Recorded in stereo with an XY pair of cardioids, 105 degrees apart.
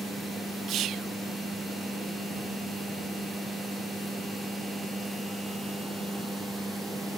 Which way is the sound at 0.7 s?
65° right.